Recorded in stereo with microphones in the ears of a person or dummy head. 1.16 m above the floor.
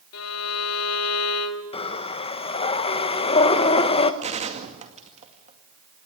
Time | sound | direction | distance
0.1 | a violin | 90° left | 1.9 m
1.7 | breathing | 35° left (ahead or behind) | 1.1 m
4.2 | a gunshot | 30° right (ahead or behind) | 2 m